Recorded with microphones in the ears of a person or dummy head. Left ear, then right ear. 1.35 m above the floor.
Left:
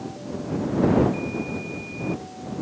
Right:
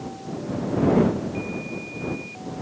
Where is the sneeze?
No sneeze in this recording.